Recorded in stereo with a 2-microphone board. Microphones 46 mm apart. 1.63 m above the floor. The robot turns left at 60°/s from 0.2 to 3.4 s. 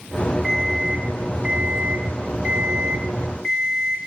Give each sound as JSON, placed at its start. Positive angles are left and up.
{"t": 0.4, "sound": "an alarm clock", "side_deg": -5, "distance_m": 0.8}